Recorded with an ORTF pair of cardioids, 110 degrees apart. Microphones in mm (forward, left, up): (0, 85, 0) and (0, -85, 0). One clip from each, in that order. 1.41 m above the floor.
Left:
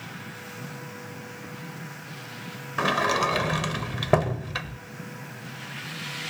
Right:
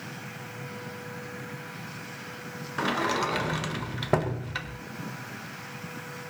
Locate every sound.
2.8 s a sliding door: 15° left, 0.7 m